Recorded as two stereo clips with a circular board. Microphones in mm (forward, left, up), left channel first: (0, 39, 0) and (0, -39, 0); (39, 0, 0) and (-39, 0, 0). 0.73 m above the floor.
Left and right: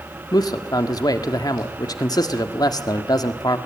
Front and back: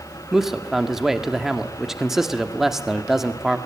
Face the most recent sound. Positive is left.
turn(degrees=95)